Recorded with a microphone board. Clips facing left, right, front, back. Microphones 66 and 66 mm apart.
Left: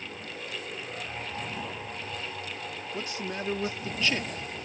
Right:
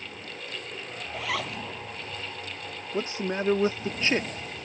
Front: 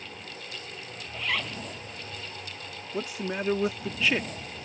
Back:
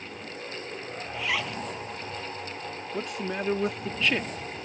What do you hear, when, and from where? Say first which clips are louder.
1.1 s a zipper: right 9 dB, back 1 dB; 100° right
2.9 s a man speaking: right 7 dB, front 1 dB; 85° right